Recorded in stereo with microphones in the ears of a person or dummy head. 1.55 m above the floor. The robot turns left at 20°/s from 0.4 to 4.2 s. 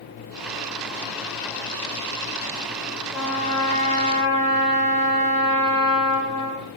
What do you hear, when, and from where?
3.1 s a trumpet: 5° right (ahead or behind), 1.1 m; by 6.6 s 15° left (ahead or behind), 1.1 m